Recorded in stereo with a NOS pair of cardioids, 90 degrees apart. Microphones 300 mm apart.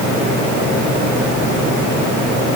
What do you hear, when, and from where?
Only background noise.